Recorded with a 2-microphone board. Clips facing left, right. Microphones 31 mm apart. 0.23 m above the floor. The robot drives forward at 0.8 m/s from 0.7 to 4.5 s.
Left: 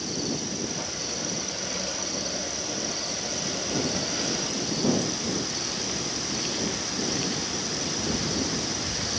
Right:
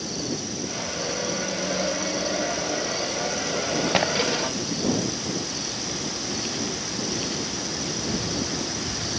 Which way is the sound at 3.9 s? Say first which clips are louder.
Right 8 dB; 65° right (ahead or behind).